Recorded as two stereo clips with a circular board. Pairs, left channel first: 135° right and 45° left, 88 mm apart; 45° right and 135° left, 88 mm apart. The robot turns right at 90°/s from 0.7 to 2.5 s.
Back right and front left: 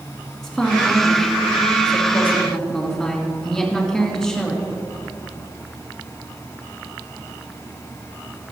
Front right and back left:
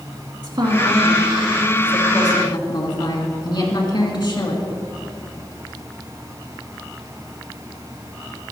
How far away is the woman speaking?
About 2 m.